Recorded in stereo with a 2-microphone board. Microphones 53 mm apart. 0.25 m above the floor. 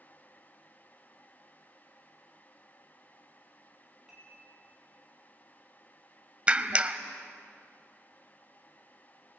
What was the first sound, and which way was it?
Dishes clattering, 10° right (ahead or behind).